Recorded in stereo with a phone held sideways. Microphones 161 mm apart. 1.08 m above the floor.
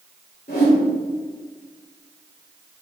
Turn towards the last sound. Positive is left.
turn(degrees=75)  # may be behind; listen again after turning